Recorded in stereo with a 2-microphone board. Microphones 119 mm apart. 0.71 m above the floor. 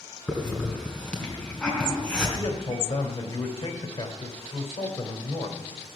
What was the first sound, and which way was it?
A hiss, 10° left (ahead or behind).